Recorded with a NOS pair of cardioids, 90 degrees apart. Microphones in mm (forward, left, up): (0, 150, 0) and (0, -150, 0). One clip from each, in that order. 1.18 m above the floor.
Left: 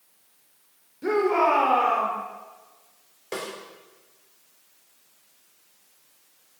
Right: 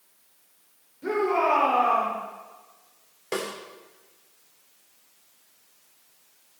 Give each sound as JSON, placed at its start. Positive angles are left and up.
{"t": 1.0, "sound": "a shout", "azimuth_deg": 30, "distance_m": 3.0}
{"t": 3.3, "sound": "a snare drum", "azimuth_deg": -20, "distance_m": 2.5}